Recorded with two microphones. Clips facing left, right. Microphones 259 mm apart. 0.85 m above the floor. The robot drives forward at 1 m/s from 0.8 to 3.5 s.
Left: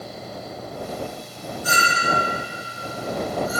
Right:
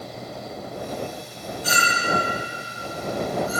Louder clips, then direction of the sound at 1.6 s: Left 1 dB; 80° right.